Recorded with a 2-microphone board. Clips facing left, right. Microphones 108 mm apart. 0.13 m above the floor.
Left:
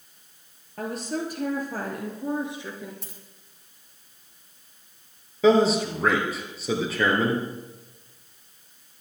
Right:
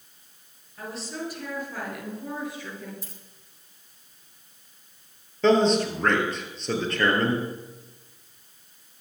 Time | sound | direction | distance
0.8 | a woman speaking | 55° left (ahead or behind) | 2.5 m
3.0 | a dropped coin | 70° left (ahead or behind) | 4 m
5.4 | a man speaking | 5° left (ahead or behind) | 2.5 m